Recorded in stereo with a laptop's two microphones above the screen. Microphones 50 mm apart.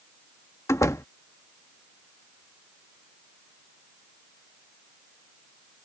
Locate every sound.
0.7 s a door slam: 85° left